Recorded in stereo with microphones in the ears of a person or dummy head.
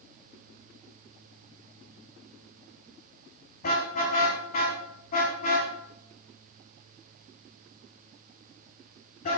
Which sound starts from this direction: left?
A car horn, at 3.6 s.